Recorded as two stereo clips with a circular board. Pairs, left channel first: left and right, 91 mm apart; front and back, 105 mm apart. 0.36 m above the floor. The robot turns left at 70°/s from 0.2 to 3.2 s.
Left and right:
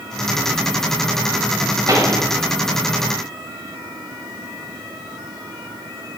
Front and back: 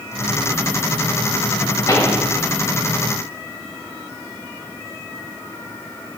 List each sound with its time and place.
1.9 s a pop: 50° right, 1.6 m; by 2.2 s 75° right, 1.6 m